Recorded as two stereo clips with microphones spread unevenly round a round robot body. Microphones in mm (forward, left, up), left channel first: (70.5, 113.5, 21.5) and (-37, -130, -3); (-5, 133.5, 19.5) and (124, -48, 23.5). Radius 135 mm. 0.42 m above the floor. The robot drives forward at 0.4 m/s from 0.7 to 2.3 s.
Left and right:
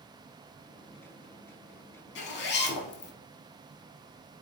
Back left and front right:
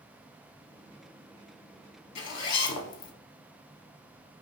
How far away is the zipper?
About 0.8 m.